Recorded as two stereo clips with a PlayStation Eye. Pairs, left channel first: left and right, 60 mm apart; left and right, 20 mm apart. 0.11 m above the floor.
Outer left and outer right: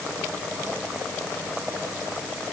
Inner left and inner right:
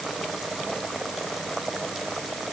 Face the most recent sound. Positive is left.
No sound to turn to.